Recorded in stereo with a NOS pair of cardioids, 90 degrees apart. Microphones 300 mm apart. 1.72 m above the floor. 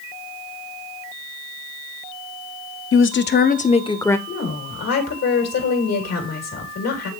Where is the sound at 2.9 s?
45° left, 0.9 m; by 4.2 s 5° left, 0.9 m.